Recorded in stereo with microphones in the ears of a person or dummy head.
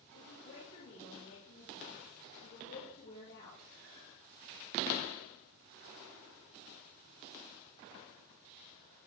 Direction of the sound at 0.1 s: 75° left (ahead or behind).